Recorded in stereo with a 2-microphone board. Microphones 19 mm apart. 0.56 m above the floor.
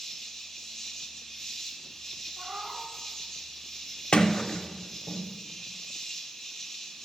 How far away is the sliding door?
About 0.5 m.